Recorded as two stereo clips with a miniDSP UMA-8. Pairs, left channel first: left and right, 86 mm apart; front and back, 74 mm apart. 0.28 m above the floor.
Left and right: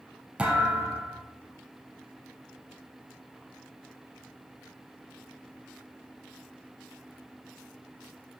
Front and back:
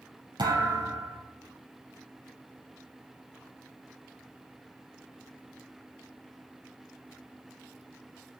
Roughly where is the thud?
Behind.